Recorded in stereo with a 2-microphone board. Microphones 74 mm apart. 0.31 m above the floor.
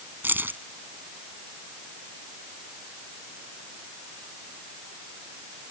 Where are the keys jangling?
25° right (ahead or behind).